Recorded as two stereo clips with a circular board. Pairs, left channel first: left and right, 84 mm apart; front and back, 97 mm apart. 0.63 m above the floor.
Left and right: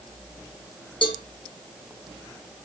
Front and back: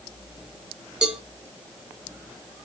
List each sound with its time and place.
1.0 s a cowbell: 100° left, 0.6 m